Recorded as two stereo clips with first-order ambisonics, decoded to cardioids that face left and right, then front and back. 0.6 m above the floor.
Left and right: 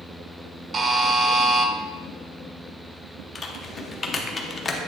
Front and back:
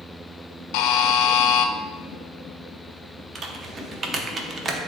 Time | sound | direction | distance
0.7 | a buzzer | 15° right | 0.5 m
3.4 | typing on a keyboard | 140° left | 0.6 m